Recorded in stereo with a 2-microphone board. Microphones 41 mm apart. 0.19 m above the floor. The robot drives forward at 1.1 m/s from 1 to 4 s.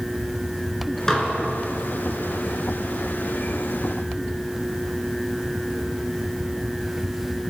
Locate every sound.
1.1 s dishes clattering: 15° left (ahead or behind), 1.9 m